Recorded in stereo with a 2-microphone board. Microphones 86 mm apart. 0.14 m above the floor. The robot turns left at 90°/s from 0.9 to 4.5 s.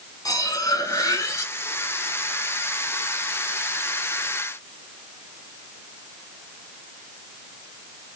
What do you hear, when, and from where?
0.2 s cutlery clinking: 100° left, 0.9 m; by 1.5 s 45° left, 0.9 m